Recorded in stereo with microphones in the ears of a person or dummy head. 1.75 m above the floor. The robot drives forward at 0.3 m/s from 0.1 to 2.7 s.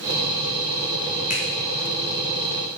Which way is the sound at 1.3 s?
55° left (ahead or behind).